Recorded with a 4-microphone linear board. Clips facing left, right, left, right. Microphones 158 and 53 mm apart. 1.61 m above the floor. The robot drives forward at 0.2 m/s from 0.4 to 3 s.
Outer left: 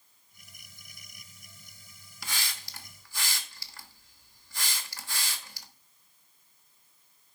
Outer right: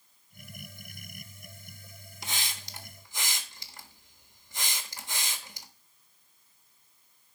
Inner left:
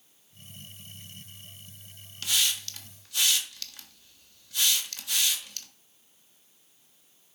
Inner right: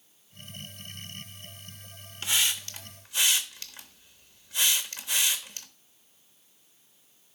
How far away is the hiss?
About 1.1 m.